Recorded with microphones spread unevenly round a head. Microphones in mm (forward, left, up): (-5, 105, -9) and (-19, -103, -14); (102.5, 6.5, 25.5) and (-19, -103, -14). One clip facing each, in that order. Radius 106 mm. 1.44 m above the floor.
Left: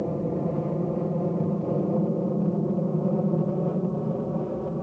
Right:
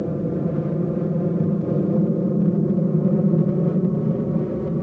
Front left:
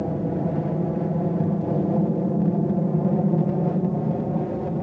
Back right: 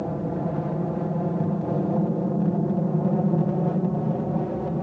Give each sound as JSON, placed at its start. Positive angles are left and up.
{"t": 0.0, "sound": "an aircraft", "azimuth_deg": -30}